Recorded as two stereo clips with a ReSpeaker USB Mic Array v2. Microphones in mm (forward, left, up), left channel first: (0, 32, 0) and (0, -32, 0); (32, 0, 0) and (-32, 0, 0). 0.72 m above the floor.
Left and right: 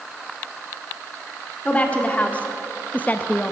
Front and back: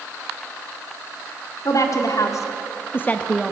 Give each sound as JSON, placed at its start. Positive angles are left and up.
{"t": 1.6, "sound": "a woman speaking", "azimuth_deg": 20, "distance_m": 2.0}